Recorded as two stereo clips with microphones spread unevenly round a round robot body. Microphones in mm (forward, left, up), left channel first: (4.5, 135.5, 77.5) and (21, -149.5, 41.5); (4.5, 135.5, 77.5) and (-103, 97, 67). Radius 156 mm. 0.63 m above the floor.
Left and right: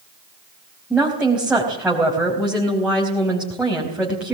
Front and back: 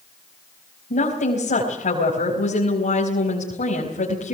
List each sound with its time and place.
0.9 s a woman speaking: straight ahead, 4 m